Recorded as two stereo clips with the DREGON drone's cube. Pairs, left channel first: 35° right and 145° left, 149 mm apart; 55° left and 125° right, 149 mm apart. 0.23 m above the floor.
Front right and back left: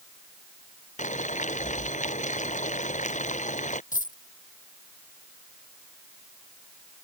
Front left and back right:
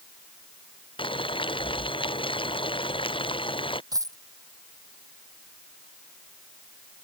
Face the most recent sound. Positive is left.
turn(degrees=-60)